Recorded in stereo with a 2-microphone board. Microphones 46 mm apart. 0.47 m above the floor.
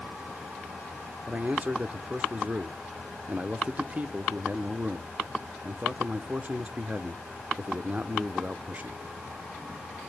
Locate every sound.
1.3 s a man speaking: 35° right (ahead or behind), 0.8 m